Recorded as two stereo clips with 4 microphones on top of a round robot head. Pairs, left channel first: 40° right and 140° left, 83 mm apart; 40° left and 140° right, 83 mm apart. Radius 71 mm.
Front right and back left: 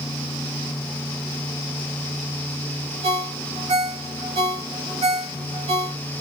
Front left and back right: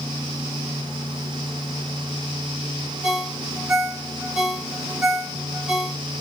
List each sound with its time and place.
3.0 s a ringtone: 140° left, 1.0 m